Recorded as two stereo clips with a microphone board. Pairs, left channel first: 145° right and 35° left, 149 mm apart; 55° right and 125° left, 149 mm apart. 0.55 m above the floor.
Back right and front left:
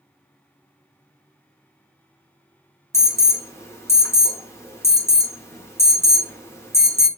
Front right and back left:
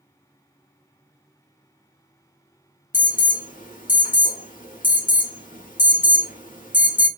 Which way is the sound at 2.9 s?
75° right.